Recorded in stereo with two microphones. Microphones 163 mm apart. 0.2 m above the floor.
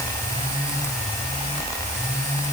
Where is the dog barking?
I don't hear a dog barking.